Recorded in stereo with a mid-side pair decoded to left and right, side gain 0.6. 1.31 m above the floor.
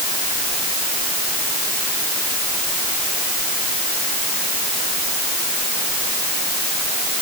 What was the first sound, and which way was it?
Only background noise.